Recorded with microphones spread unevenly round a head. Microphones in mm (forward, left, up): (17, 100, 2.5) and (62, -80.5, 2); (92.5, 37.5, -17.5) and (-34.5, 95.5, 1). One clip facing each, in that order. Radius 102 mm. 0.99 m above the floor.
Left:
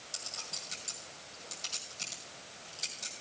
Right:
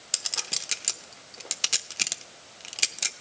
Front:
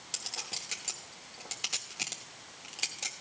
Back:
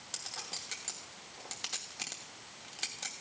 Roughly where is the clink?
Right.